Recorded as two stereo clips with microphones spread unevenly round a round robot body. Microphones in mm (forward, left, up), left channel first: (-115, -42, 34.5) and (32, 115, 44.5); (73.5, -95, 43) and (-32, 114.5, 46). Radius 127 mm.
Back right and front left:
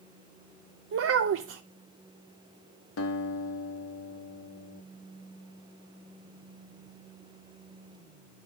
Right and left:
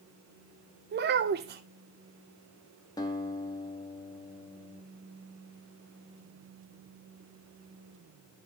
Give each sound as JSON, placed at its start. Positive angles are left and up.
{"t": 0.9, "sound": "a child speaking", "azimuth_deg": 70, "distance_m": 0.5}
{"t": 3.0, "sound": "a guitar", "azimuth_deg": -140, "distance_m": 1.2}